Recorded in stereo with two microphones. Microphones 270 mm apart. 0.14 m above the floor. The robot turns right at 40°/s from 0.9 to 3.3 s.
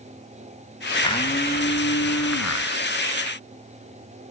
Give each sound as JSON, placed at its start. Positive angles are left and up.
{"t": 1.0, "sound": "a blender", "azimuth_deg": 15, "distance_m": 3.0}